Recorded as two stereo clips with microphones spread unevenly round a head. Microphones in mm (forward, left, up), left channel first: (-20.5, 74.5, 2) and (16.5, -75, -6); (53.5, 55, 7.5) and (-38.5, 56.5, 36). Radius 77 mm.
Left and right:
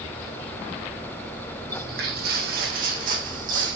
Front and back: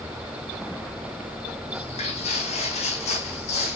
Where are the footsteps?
50° right, 5 m; by 3.8 s 35° right, 5.5 m.